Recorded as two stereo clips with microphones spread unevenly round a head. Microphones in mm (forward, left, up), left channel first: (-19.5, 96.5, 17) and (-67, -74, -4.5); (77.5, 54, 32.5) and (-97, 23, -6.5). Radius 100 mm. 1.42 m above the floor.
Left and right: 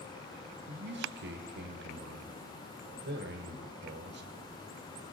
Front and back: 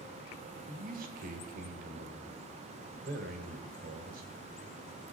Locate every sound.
0.7 s a man speaking: 125° right, 1.8 m